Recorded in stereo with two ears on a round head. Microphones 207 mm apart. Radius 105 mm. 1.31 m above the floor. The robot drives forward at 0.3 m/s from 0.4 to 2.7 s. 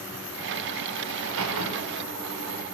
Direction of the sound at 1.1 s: 85° right.